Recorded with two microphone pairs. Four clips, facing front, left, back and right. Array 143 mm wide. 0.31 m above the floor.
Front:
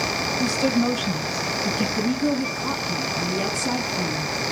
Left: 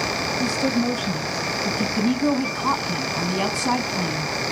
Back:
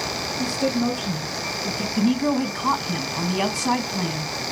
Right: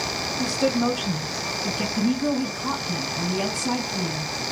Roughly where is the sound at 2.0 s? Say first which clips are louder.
Left 2 dB, back 5 dB; behind left.